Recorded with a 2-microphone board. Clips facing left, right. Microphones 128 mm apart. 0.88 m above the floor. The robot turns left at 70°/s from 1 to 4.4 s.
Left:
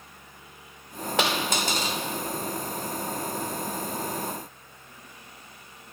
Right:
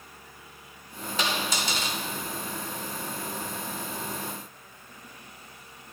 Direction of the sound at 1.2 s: 85° left.